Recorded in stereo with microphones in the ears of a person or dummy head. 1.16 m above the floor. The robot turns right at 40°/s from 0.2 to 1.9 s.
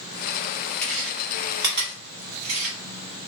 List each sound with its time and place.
0.8 s chewing: 5° left (ahead or behind), 1.8 m; by 2.8 s 40° right (ahead or behind), 1.8 m